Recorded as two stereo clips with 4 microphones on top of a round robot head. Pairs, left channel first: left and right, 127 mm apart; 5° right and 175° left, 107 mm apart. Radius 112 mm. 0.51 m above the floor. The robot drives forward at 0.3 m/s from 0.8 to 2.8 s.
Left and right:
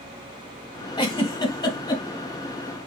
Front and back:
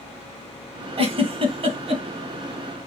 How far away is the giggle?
About 2 m.